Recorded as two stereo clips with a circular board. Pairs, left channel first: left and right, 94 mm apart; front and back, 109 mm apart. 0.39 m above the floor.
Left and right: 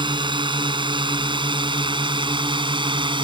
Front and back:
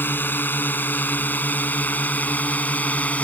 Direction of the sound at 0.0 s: 70° right.